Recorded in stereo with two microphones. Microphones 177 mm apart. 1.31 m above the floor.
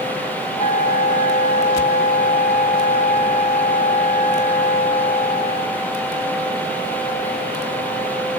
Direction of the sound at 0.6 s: 50° left (ahead or behind).